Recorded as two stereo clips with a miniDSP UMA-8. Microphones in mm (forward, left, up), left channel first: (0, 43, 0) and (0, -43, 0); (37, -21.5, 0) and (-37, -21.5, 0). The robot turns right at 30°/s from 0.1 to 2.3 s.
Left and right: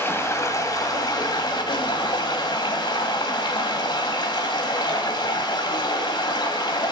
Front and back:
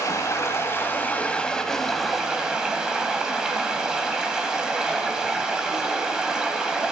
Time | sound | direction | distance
0.0 | running water | 35° left | 1.7 m